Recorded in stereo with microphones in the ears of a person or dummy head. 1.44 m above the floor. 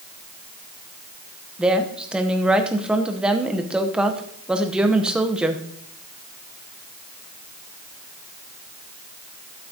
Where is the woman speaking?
5° right (ahead or behind), 0.8 m.